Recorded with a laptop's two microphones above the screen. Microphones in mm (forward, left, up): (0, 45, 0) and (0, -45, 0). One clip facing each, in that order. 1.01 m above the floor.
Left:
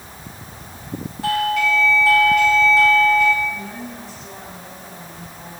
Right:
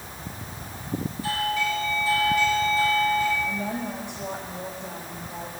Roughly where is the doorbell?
Left.